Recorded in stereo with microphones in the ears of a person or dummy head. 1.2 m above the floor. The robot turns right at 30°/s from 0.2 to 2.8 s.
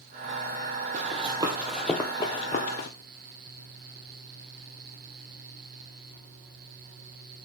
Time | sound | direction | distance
0.9 | running footsteps | 45° right (ahead or behind) | 2.5 m